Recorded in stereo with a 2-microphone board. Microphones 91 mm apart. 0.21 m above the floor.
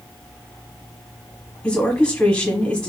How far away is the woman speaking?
About 1.2 m.